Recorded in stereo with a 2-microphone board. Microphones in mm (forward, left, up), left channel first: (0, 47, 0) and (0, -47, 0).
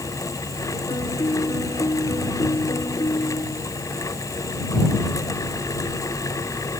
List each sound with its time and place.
0.9 s a piano: 45° left (ahead or behind)